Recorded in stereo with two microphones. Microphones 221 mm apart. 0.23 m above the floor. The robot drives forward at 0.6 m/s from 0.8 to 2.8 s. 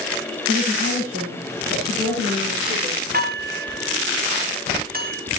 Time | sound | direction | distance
0.5 | a woman speaking | 55° right (ahead or behind) | 9.5 m
3.1 | dishes clattering | 45° right (ahead or behind) | 3 m